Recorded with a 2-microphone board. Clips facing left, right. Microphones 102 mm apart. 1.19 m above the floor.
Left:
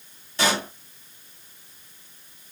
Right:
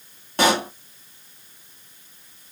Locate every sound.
0.4 s a pop: 55° right (ahead or behind), 1.1 m